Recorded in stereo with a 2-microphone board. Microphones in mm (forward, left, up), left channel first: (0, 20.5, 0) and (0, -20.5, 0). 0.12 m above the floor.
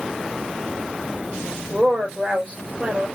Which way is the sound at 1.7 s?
40° right (ahead or behind).